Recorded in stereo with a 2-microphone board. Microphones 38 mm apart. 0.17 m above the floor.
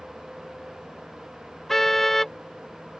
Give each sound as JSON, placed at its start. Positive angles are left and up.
{"t": 1.7, "sound": "a car horn", "side_deg": 10}